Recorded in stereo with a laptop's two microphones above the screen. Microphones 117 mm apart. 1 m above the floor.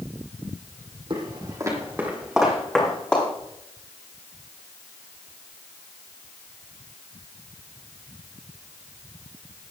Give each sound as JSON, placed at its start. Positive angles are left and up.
{"t": 1.1, "sound": "footsteps", "side_deg": -45, "distance_m": 2.5}